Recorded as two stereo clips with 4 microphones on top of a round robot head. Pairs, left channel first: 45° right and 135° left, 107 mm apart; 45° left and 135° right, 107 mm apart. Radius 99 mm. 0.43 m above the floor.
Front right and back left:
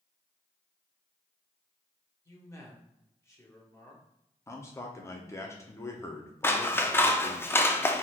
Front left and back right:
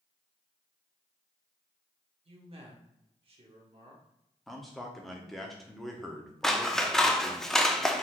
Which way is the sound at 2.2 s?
105° right.